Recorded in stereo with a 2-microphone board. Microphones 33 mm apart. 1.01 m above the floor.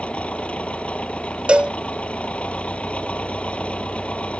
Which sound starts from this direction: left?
An engine running, at 0.0 s.